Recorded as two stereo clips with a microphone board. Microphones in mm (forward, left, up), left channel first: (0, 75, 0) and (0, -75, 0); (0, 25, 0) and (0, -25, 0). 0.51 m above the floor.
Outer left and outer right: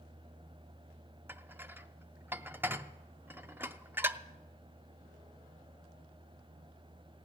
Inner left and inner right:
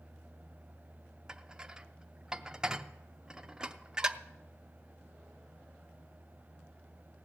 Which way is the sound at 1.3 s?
15° right (ahead or behind).